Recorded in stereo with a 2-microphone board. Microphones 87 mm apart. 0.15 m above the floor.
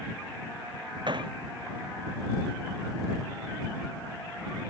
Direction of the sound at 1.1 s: 60° right (ahead or behind).